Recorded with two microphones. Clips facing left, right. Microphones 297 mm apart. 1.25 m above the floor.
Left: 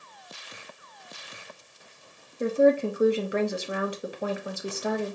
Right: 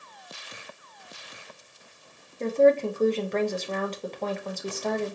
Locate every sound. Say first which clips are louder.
2.4 s a woman speaking: right 1 dB; 10° left (ahead or behind), 0.6 m